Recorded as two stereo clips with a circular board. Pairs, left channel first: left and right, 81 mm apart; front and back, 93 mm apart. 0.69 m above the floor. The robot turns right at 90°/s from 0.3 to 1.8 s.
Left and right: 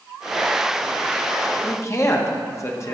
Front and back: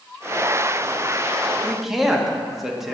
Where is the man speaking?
80° left, 0.8 m; by 3.0 s 95° left, 0.8 m.